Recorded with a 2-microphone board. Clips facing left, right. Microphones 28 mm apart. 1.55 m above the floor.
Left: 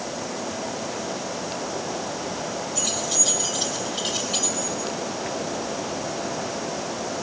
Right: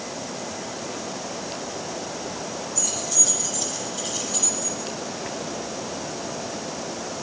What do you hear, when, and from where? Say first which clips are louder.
2.8 s keys jangling: left 2 dB; 70° left (ahead or behind), 6 m; by 4.8 s 55° left (ahead or behind), 6 m